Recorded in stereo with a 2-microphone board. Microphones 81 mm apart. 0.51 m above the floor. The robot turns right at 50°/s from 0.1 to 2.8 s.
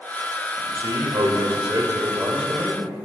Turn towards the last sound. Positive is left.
turn(degrees=0)